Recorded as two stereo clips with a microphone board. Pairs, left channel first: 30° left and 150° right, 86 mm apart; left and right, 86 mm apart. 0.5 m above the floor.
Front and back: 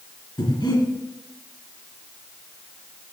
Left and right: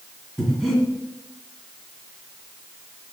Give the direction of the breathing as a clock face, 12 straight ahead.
12 o'clock.